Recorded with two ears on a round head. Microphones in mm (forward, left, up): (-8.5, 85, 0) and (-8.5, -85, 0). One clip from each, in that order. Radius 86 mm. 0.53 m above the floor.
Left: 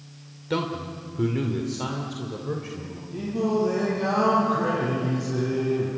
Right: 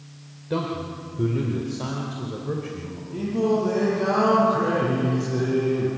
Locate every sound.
0.5 s a man speaking: 60° left (ahead or behind), 2 m; by 3.0 s 5° left (ahead or behind), 3 m
3.1 s singing: centre (ahead or behind), 9 m